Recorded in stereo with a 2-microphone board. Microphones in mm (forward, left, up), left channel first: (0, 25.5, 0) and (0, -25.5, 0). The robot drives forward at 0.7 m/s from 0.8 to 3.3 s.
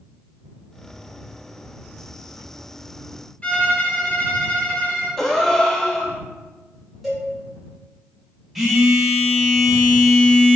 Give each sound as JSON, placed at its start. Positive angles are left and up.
{"t": 3.4, "sound": "a violin", "side_deg": 25, "distance_m": 1.0}
{"t": 5.2, "sound": "a gasp", "side_deg": 10, "distance_m": 0.6}
{"t": 7.0, "sound": "a cowbell", "side_deg": 0, "distance_m": 1.8}
{"t": 8.6, "sound": "a phone buzzing", "side_deg": -5, "distance_m": 1.5}